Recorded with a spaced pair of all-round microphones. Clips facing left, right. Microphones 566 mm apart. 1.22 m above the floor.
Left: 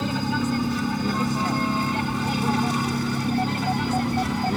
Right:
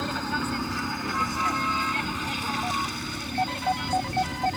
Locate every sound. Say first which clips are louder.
0.0 s a vehicle: left 6 dB; 50° left (ahead or behind); by 4.6 s 70° left (ahead or behind)